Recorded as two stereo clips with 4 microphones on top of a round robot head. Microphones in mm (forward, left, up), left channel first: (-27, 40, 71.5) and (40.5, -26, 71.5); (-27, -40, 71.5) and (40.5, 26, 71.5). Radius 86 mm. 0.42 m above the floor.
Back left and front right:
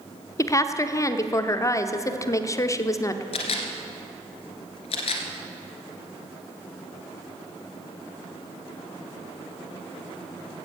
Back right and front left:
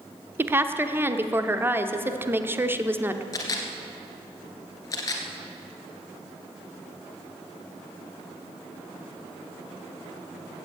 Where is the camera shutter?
165° left, 1.7 m.